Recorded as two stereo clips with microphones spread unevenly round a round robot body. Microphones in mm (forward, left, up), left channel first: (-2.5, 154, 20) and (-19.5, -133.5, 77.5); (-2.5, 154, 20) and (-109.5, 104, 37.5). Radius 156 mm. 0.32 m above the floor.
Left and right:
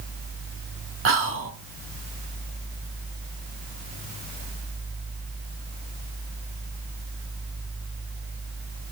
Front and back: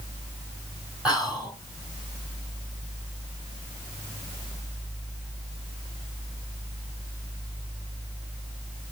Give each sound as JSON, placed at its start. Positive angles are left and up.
{"t": 1.1, "sound": "whispering", "azimuth_deg": -65, "distance_m": 1.2}